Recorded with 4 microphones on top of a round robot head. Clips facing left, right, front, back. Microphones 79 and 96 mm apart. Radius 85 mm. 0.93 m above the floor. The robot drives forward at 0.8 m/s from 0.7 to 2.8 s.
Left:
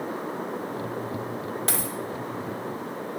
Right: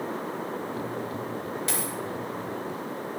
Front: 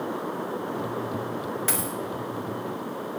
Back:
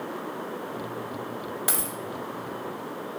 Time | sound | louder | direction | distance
1.7 | a dropped coin | left 1 dB, front 2 dB | 110° left | 0.8 m